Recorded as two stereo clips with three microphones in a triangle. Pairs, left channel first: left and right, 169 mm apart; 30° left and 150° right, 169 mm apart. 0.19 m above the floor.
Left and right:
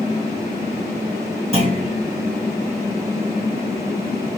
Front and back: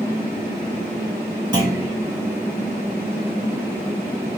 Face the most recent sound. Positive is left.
turn(degrees=-100)